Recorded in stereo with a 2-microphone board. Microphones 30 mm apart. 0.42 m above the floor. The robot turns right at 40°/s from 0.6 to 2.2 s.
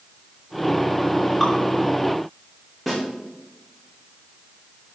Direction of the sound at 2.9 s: Centre (ahead or behind).